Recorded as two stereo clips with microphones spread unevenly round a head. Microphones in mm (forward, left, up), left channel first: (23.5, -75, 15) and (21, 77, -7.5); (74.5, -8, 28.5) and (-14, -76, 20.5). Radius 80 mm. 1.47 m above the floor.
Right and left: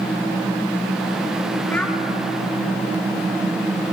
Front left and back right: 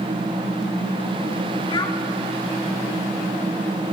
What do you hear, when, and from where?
1.7 s a child speaking: 10° right, 2.5 m